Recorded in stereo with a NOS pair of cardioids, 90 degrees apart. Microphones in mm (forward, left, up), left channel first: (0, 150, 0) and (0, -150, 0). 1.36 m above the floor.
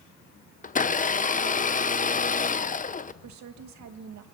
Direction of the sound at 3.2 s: 70° right.